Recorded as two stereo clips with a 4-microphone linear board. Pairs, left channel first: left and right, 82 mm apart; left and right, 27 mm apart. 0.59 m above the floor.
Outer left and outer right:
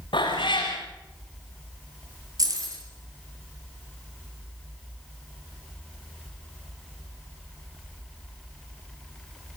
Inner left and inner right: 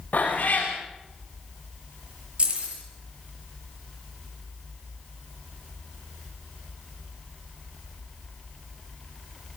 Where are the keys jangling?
45° right (ahead or behind), 7.5 m.